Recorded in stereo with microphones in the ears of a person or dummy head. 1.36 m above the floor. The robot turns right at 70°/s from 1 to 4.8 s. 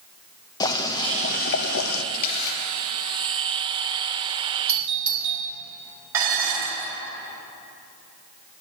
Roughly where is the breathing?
No breathing in this recording.